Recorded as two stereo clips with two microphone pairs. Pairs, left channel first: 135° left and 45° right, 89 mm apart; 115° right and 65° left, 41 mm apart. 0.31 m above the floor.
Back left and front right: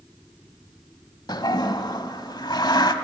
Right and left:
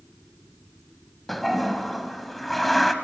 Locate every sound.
1.3 s a toilet flushing: 165° left, 1.2 m